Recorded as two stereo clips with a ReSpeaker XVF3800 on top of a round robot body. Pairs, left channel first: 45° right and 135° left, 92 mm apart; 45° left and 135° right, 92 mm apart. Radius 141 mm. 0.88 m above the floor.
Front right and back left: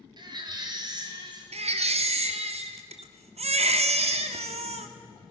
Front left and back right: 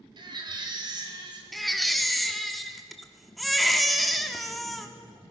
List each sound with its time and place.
0.2 s a baby crying: straight behind, 3 m
1.5 s a baby crying: 135° left, 1.1 m